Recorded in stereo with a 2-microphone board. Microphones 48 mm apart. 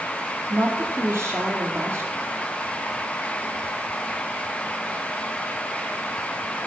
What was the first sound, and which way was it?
A woman speaking, 65° right (ahead or behind).